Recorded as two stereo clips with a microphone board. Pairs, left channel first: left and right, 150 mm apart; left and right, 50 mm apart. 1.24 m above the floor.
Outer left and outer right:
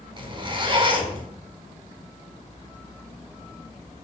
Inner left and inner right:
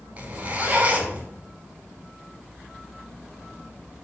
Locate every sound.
0.2 s a zipper: 35° right (ahead or behind), 4 m